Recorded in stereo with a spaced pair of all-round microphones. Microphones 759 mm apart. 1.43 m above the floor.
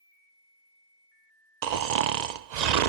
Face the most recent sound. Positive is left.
turn(degrees=-65)  # may be behind; listen again after turning